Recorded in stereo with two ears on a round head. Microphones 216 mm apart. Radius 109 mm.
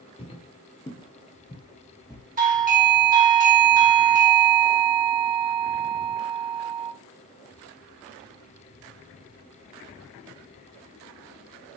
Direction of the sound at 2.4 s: 35° right (ahead or behind).